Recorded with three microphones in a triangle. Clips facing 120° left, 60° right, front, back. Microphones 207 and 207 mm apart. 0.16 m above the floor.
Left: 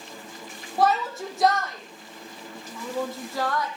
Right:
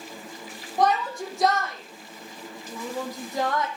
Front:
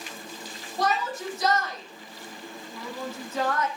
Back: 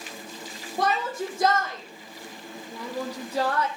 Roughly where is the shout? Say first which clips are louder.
Even, back 1 dB; behind right.